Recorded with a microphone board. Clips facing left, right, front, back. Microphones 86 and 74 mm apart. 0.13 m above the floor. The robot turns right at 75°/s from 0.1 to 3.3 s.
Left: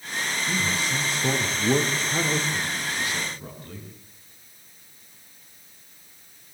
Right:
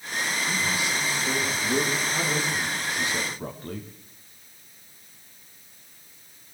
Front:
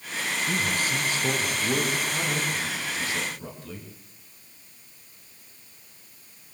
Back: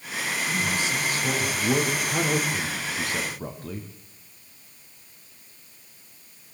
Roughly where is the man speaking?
Ahead.